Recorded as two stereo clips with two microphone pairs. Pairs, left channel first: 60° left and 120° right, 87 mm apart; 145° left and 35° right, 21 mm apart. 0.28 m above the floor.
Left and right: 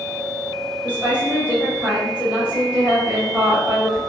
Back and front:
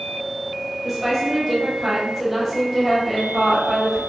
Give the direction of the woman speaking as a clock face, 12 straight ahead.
3 o'clock.